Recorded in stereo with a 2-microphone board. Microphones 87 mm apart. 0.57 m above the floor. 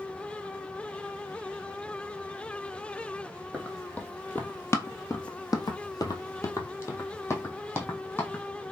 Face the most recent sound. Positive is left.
turn(degrees=25)  # may be behind; listen again after turning